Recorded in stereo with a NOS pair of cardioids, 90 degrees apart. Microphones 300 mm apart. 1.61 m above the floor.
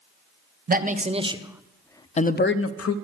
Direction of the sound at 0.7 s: 30° right.